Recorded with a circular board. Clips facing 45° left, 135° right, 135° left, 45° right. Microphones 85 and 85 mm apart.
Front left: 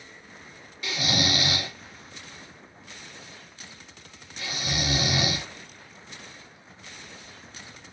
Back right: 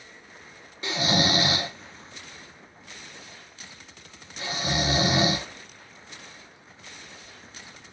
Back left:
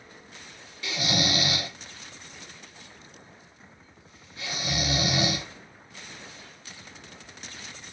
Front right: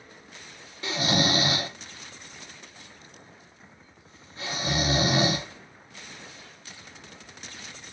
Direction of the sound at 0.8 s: 90° right.